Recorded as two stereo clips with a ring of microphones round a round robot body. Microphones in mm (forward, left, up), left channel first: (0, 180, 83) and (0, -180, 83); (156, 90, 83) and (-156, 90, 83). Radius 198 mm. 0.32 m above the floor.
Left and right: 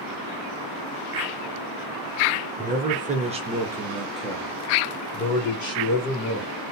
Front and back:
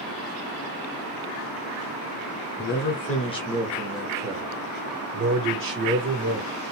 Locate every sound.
2.6 s a man speaking: 40° right, 1.2 m; by 6.5 s 150° left, 1.8 m